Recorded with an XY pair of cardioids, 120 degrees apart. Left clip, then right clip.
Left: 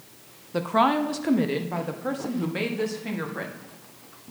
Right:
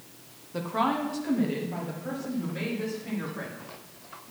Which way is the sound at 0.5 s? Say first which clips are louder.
Left 6 dB; 35° left.